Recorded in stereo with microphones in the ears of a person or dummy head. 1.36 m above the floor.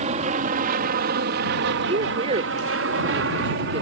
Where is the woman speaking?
35° right (ahead or behind).